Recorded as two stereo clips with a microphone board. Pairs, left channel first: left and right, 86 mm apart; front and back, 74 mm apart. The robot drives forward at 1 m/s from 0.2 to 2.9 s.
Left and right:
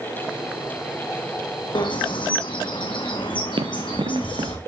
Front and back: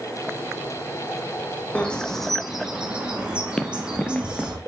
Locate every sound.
1.8 s a bird: 70° left, 2 m; by 4.6 s 105° left, 2 m
3.6 s running footsteps: 75° right, 1.0 m